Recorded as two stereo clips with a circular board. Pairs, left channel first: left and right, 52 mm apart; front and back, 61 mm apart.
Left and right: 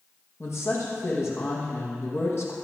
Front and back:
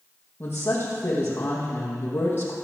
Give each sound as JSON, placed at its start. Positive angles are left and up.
{"t": 0.4, "sound": "a woman speaking", "azimuth_deg": 55, "distance_m": 5.5}